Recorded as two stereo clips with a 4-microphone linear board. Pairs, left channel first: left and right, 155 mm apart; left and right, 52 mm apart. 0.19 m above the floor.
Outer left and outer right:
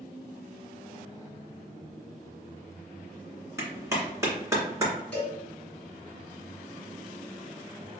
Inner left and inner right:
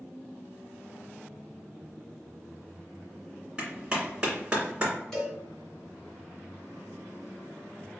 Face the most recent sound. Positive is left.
turn(degrees=5)  # may be behind; listen again after turning